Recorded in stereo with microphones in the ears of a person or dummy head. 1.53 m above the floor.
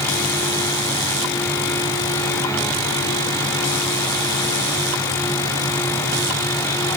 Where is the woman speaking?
I don't hear a woman speaking.